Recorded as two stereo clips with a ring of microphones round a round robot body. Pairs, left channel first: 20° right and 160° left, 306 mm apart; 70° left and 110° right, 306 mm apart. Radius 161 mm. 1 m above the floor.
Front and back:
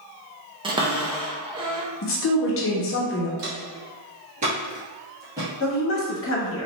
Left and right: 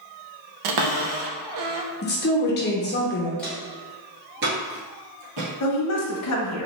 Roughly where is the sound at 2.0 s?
Ahead.